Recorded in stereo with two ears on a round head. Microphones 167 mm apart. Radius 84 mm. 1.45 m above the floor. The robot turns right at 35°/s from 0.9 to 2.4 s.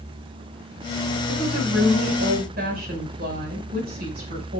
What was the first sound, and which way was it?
A woman speaking, 95° right.